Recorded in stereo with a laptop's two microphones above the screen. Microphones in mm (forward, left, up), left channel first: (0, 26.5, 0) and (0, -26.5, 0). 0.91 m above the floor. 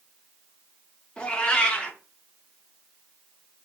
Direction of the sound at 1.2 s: 20° left (ahead or behind).